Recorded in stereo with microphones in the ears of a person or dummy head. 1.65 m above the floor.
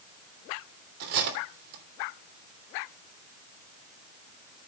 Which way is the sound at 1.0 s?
55° right (ahead or behind).